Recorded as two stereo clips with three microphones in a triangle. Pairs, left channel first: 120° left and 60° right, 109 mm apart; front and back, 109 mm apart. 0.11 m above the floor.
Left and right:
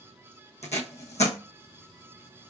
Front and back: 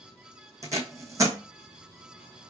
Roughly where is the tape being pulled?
Behind left.